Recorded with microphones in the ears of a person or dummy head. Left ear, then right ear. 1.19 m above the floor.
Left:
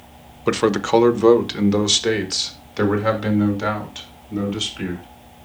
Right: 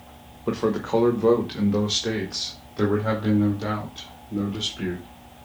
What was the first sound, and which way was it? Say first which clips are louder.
A man speaking: left 6 dB; 70° left (ahead or behind).